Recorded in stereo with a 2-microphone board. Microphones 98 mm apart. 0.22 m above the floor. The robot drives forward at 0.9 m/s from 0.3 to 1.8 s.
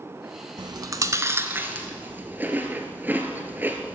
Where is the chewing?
55° right (ahead or behind), 0.6 m; by 3.9 s 20° right (ahead or behind), 1.4 m.